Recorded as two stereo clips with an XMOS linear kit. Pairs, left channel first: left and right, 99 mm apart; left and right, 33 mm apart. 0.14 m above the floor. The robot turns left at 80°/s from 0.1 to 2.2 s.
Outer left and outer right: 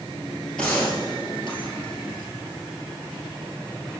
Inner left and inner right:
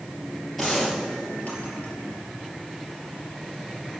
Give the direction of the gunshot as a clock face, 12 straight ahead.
6 o'clock.